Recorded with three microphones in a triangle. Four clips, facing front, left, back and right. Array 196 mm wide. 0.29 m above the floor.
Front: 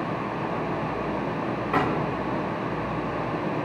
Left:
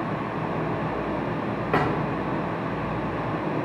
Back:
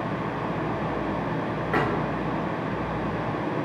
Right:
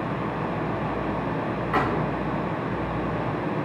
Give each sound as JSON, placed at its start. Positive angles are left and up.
{"t": 1.7, "sound": "a thud", "azimuth_deg": 105, "distance_m": 6.0}